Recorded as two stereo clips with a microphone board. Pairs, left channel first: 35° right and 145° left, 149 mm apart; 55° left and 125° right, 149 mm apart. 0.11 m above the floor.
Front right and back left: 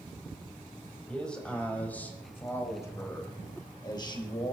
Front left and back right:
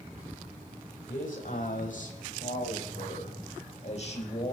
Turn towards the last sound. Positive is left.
turn(degrees=15)